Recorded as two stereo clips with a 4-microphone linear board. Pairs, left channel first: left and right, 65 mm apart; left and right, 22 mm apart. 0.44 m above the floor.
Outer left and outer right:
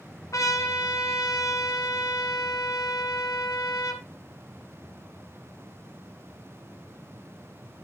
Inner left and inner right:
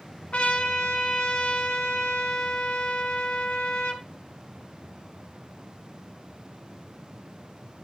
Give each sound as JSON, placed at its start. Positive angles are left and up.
{"t": 0.3, "sound": "a trumpet", "side_deg": 55, "distance_m": 1.4}